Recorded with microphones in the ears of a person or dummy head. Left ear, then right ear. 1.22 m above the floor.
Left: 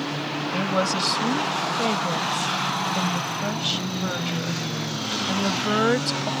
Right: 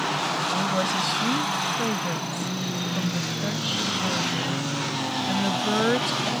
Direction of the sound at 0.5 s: 25° left (ahead or behind).